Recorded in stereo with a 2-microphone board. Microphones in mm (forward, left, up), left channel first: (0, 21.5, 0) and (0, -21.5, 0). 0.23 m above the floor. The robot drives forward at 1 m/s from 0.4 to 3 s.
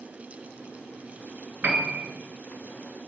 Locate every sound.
1.6 s a piano: 45° right (ahead or behind), 0.6 m; by 2.1 s 25° right (ahead or behind), 0.9 m